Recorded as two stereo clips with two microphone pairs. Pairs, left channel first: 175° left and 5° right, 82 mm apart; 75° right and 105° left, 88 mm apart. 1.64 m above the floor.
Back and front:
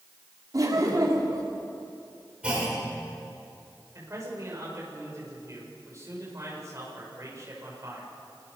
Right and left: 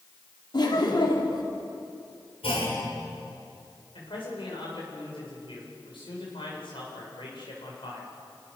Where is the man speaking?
55° right, 7.5 m.